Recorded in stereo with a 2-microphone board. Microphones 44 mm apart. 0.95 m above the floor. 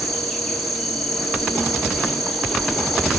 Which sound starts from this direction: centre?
An insect, at 0.0 s.